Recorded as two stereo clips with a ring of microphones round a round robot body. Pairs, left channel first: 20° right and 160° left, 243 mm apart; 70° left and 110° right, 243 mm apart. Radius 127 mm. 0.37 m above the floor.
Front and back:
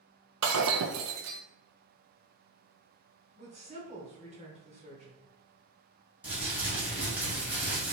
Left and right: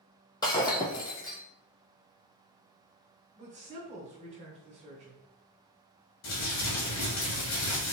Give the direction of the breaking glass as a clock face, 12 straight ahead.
7 o'clock.